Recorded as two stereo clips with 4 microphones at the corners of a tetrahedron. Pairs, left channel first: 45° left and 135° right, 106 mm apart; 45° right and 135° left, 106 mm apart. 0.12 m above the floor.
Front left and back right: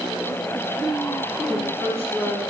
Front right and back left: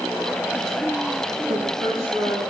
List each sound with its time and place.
1.5 s a woman speaking: 155° left, 8.5 m